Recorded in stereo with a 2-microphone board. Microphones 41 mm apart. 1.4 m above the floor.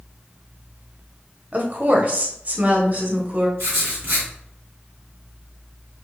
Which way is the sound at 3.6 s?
75° right (ahead or behind).